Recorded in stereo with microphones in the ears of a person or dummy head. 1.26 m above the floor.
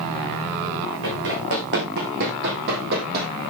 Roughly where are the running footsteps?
Right.